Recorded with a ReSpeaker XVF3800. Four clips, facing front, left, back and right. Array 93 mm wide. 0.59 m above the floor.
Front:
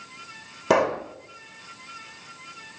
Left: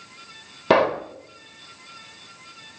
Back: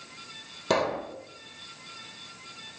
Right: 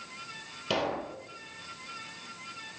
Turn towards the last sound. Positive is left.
turn(degrees=65)